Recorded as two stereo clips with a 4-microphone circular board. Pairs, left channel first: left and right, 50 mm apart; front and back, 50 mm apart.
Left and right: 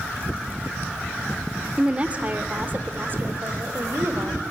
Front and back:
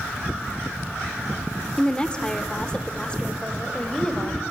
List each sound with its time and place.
1.8 s a woman speaking: 45° right, 1.3 m; by 4.4 s 70° right, 2 m